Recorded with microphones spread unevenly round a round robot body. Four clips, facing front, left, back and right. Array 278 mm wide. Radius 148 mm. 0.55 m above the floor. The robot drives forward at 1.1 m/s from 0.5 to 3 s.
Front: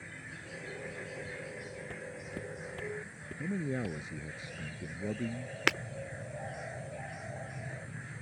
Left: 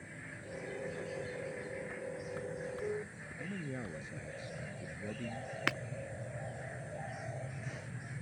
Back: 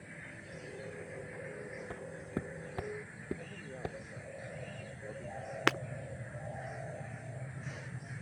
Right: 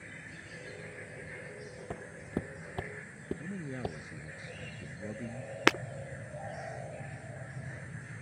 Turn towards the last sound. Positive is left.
turn(degrees=-95)